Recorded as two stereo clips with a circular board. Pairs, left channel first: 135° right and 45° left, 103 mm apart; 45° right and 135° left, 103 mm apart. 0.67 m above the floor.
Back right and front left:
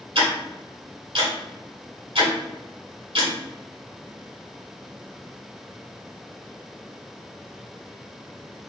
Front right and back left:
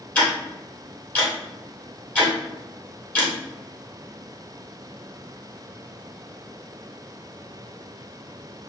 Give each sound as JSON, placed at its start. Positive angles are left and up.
{"t": 0.1, "sound": "ticking", "azimuth_deg": 30, "distance_m": 1.6}